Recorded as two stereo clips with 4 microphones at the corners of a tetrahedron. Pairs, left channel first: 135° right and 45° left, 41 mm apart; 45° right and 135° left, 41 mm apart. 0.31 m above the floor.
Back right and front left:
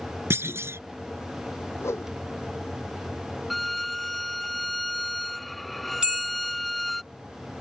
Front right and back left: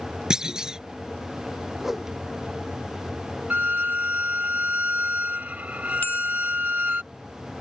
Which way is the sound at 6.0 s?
20° right.